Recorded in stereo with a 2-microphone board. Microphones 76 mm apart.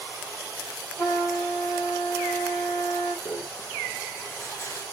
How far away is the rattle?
About 5 m.